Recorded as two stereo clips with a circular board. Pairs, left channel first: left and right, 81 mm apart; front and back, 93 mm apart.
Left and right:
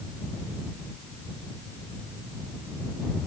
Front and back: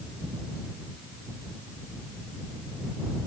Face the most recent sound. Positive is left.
No sound to turn to.